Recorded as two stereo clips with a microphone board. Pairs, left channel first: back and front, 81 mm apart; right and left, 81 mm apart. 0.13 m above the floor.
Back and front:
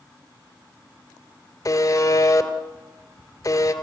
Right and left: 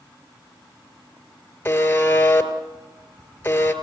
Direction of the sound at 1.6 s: 150° right.